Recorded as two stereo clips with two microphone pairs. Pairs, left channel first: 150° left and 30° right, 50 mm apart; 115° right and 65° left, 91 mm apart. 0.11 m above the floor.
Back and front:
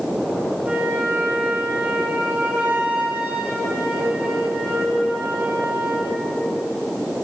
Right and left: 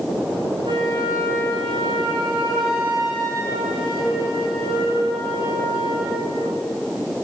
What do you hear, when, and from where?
0.6 s a flute: 30° left, 3 m